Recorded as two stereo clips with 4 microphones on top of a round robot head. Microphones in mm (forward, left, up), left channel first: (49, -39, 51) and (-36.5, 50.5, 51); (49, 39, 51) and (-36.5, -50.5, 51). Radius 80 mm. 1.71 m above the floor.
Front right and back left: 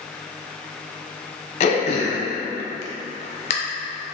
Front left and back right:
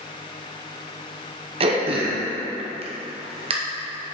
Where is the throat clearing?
90° right, 0.8 m.